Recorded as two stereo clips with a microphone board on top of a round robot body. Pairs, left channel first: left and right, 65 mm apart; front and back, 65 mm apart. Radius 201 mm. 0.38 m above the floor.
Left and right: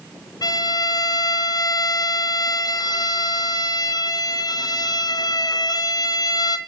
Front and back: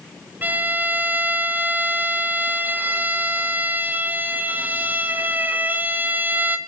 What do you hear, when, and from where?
0.4 s a violin: 115° left, 1.3 m